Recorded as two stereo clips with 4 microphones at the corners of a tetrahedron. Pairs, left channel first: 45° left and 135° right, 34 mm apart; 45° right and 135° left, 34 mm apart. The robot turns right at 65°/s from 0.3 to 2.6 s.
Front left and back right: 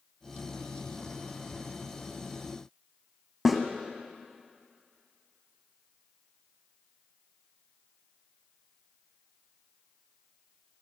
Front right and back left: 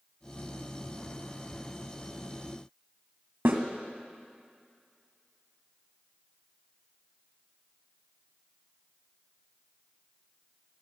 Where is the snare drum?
150° left, 1.7 m.